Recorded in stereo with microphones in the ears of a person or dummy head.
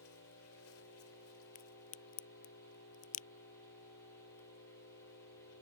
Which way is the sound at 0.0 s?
85° left.